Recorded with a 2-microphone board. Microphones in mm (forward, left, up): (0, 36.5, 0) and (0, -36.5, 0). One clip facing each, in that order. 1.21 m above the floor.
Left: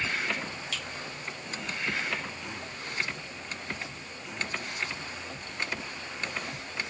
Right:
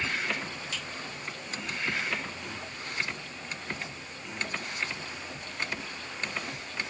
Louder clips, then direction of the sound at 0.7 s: Left 1 dB; 60° left (ahead or behind).